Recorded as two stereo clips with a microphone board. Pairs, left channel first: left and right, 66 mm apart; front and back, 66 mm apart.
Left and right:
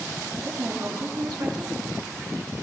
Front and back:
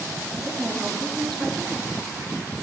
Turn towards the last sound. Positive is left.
turn(degrees=-85)